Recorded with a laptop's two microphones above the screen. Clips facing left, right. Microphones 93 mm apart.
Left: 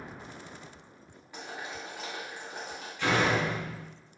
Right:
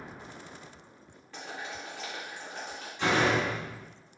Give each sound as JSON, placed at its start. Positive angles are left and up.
{"t": 1.3, "sound": "boiling", "side_deg": 10, "distance_m": 1.3}
{"t": 3.0, "sound": "a door slam", "side_deg": -20, "distance_m": 0.8}